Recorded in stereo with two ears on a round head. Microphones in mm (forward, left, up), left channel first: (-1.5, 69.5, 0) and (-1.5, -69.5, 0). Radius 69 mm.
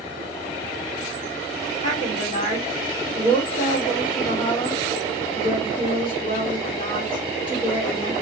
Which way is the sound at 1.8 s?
35° left (ahead or behind).